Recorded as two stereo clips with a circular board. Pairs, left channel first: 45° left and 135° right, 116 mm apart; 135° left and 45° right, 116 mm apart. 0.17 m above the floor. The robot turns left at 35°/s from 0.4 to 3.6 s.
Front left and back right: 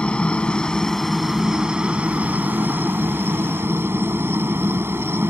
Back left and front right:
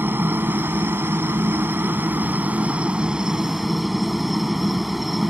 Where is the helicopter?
20° right; by 5.3 s 130° right.